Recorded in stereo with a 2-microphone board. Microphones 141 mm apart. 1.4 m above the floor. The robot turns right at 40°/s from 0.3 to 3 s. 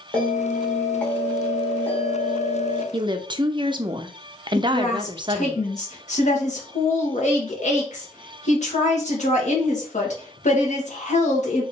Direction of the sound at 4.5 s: 55° left (ahead or behind).